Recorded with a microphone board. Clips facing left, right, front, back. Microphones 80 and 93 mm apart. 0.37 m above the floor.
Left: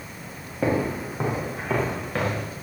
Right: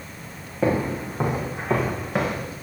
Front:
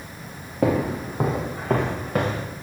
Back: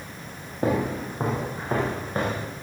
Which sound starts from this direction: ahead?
Footsteps, at 0.6 s.